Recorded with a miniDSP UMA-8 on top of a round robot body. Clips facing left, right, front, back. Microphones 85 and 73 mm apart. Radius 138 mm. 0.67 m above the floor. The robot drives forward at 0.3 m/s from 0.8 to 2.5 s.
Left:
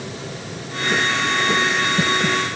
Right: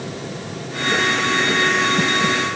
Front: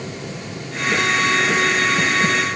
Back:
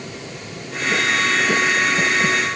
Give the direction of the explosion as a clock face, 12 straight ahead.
I don't hear an explosion.